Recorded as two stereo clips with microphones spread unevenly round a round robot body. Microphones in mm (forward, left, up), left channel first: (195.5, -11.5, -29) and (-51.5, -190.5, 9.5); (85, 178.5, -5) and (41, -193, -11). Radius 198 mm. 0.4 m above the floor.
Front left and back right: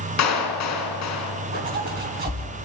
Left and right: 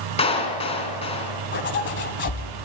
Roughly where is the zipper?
Behind left.